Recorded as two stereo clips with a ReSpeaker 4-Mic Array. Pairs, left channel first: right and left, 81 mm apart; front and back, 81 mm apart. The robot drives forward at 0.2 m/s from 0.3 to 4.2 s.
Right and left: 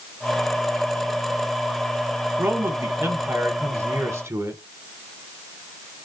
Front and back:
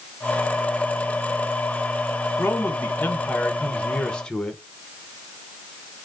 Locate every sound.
2.4 s a man speaking: 45° left, 1.0 m; by 4.6 s 75° left, 0.9 m